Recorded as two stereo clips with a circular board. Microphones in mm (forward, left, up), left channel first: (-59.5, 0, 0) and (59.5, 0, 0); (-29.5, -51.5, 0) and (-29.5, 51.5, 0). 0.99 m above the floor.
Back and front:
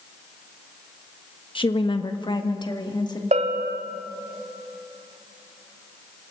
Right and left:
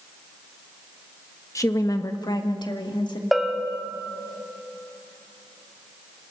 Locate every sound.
1.6 s a woman speaking: 145° right, 1.2 m; by 3.2 s 130° right, 2 m
3.3 s a bell: straight ahead, 1.7 m